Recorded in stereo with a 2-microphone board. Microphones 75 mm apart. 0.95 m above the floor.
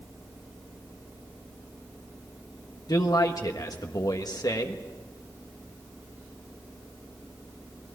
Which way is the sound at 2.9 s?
60° left (ahead or behind).